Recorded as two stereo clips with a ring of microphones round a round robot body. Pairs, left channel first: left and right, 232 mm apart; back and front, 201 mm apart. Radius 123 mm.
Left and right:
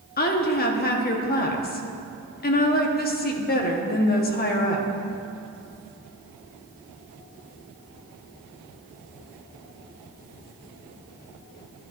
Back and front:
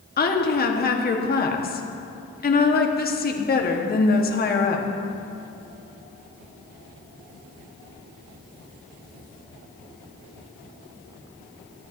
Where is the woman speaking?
140° left, 1.5 m.